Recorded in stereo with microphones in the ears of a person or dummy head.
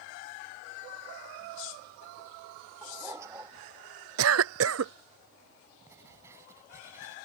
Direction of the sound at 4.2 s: 70° right (ahead or behind).